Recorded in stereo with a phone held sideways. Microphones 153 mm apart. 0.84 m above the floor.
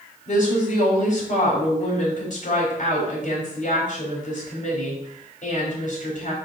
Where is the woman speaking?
60° left (ahead or behind), 3 m.